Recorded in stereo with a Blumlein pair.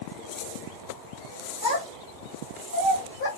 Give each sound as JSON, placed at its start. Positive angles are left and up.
{"t": 1.6, "sound": "a child speaking", "azimuth_deg": 50, "distance_m": 2.0}